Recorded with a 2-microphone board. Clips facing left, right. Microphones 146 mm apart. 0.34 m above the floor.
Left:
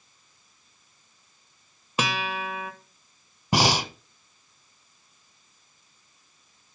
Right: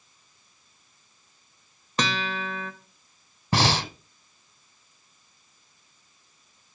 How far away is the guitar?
About 1.0 m.